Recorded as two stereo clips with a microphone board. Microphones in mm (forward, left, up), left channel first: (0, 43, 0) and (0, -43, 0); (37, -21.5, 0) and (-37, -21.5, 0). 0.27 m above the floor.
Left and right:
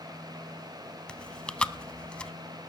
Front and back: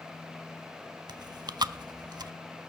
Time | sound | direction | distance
1.1 | chewing | 170° left | 0.5 m